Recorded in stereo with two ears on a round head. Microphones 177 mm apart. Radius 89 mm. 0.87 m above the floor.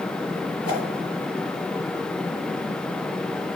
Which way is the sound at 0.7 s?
30° left (ahead or behind).